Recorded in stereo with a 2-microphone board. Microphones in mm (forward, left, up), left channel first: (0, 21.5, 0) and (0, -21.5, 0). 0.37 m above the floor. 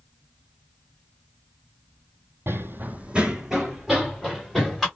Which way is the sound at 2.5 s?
65° right (ahead or behind).